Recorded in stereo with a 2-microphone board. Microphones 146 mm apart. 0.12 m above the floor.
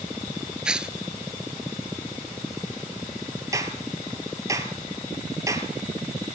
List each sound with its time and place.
0.7 s tearing paper: 5° right (ahead or behind), 0.7 m
3.5 s a clap: 20° right (ahead or behind), 2.5 m